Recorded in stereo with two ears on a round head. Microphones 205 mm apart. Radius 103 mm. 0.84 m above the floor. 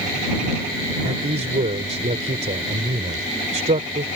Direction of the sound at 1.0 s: 30° right (ahead or behind).